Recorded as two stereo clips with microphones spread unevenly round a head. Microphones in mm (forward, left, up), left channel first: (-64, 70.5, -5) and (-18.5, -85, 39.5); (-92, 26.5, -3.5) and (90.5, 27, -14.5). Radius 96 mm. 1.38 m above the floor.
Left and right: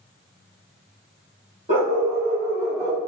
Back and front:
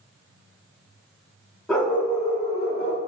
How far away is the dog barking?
About 1.2 m.